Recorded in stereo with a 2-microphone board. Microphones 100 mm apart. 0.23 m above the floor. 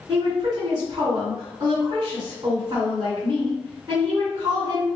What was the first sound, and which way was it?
A woman speaking, 40° right (ahead or behind).